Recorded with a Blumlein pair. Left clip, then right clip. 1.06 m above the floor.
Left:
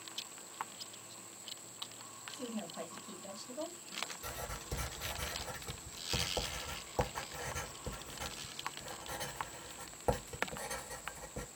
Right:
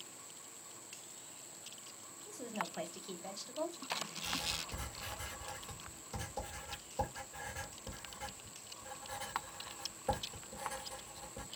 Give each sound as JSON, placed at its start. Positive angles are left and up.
{"t": 2.3, "sound": "a woman speaking", "azimuth_deg": -25, "distance_m": 1.3}
{"t": 4.2, "sound": "writing", "azimuth_deg": 55, "distance_m": 1.8}